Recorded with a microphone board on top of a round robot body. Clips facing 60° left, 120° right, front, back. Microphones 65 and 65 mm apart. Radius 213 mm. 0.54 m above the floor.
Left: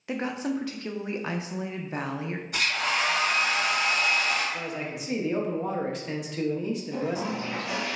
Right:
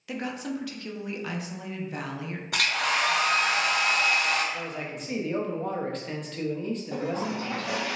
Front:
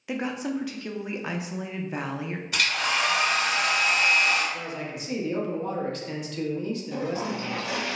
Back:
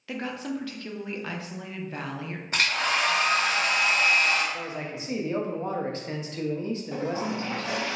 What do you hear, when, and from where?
0.1 s a woman speaking: 55° left, 0.6 m
2.5 s a hair dryer: 125° right, 0.8 m
4.5 s a man speaking: 140° left, 0.8 m
6.9 s a toilet flushing: 130° right, 1.2 m